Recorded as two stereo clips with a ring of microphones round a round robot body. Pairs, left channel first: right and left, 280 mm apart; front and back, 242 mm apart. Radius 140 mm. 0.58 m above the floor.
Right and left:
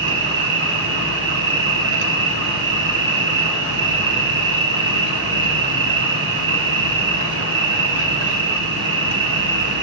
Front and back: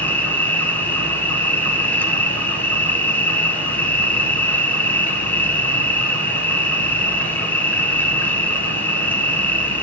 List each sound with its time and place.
0.0 s an insect: 80° left, 1.8 m